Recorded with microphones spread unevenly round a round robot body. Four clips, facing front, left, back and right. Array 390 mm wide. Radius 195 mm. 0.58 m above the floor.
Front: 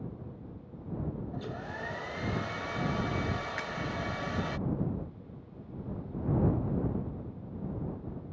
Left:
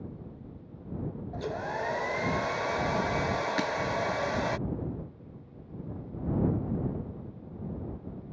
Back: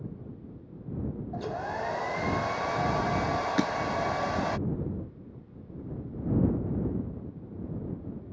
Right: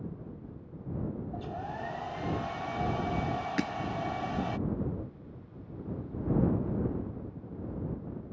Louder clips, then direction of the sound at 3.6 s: Left 2 dB, back 11 dB; 165° right.